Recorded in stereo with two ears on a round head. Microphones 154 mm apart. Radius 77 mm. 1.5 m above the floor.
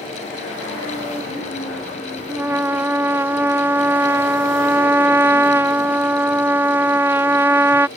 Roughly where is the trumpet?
Centre.